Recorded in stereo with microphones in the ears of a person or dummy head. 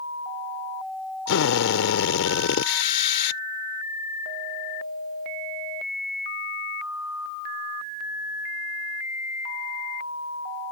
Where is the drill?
75° left (ahead or behind).